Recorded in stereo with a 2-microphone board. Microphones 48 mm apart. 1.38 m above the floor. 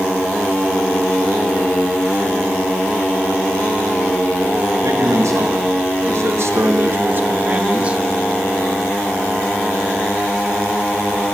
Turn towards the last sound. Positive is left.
turn(degrees=-25)  # may be behind; listen again after turning